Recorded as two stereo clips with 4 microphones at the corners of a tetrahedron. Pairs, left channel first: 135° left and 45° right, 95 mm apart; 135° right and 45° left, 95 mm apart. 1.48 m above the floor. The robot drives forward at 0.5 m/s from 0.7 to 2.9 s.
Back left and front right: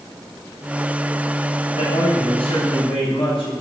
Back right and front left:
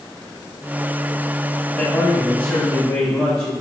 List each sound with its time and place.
1.8 s a man speaking: 150° left, 9.5 m